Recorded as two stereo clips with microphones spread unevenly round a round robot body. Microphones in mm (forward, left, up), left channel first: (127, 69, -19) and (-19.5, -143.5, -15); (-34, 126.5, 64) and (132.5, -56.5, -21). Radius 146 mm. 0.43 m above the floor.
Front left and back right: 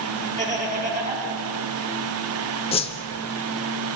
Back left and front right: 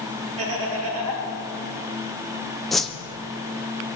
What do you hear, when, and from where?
0.4 s laughter: 65° right, 4 m
2.7 s a whoosh: 10° left, 0.7 m